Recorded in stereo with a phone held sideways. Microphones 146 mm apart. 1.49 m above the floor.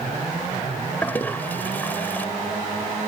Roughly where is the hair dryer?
No hair dryer in this recording.